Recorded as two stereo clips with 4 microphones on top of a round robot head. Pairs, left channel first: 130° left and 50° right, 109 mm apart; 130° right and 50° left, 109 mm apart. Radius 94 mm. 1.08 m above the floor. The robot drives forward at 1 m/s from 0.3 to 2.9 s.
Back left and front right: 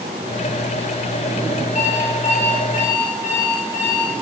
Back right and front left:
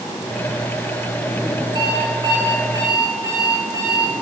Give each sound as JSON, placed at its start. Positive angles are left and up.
{"t": 1.8, "sound": "an alarm clock", "azimuth_deg": 105, "distance_m": 6.5}